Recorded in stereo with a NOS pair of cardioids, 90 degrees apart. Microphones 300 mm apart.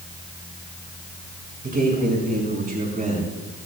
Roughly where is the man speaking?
Ahead right.